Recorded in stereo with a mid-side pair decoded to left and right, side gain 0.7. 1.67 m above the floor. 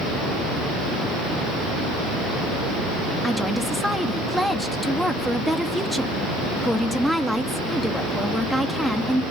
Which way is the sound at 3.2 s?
Straight ahead.